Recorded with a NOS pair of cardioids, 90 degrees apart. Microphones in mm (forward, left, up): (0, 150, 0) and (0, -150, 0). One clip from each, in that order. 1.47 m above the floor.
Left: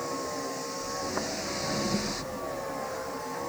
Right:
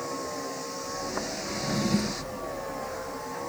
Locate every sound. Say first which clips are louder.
0.0 s a vehicle: even; straight ahead
1.5 s a drawer: right 2 dB; 45° right